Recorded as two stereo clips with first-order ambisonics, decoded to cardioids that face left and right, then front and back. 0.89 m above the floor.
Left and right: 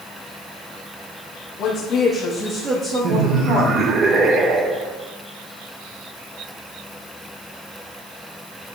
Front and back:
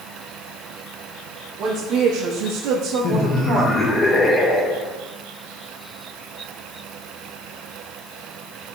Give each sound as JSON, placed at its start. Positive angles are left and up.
{"t": 1.6, "sound": "a woman speaking", "azimuth_deg": 130, "distance_m": 1.3}
{"t": 3.0, "sound": "laughter", "azimuth_deg": -60, "distance_m": 0.6}